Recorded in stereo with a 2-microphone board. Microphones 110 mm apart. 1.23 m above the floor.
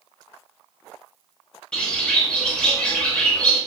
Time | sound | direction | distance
1.7 | a bird | 10° left (ahead or behind) | 0.6 m